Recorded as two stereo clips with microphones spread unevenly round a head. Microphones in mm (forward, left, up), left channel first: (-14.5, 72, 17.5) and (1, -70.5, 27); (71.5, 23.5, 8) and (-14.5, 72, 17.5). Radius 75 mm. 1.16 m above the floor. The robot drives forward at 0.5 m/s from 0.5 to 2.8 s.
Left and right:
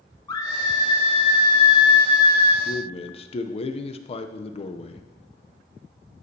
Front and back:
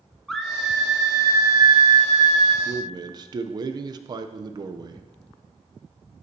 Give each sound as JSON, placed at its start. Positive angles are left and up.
{"t": 0.3, "sound": "a scream", "azimuth_deg": 50, "distance_m": 0.7}
{"t": 2.6, "sound": "a man speaking", "azimuth_deg": 105, "distance_m": 0.6}